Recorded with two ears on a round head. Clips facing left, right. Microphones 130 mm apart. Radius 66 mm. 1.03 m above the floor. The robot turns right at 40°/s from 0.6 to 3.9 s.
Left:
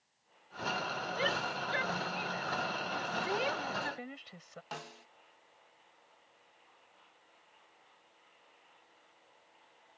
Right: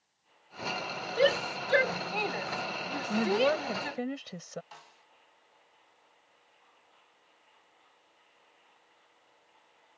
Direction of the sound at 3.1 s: 80° right.